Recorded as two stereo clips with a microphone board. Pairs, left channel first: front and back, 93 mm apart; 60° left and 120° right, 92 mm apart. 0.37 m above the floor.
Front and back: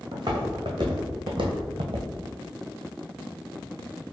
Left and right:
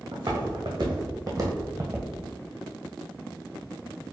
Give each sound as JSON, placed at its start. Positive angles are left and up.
{"t": 0.1, "sound": "footsteps", "azimuth_deg": -140, "distance_m": 1.7}